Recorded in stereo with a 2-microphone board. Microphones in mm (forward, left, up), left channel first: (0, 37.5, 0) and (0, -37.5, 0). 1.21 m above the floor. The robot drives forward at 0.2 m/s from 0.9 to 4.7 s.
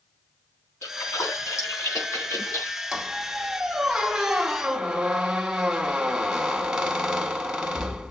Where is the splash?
45° left (ahead or behind), 4 m; by 2.8 s 40° left (ahead or behind), 4.5 m.